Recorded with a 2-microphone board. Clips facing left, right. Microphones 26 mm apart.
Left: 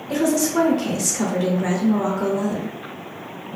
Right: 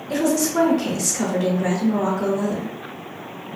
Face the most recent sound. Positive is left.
turn(degrees=0)  # may be behind; listen again after turning